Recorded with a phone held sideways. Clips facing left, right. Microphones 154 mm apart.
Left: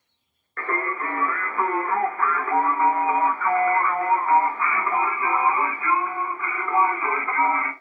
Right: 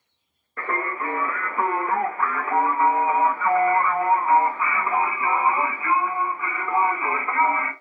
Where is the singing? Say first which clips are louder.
Even; 10° right (ahead or behind), 0.7 m.